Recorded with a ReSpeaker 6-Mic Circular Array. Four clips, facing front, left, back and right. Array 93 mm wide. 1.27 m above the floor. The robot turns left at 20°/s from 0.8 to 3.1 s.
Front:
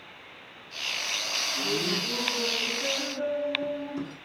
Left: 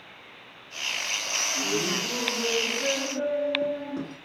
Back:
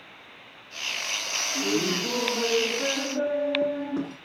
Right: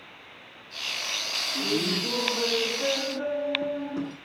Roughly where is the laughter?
Behind right.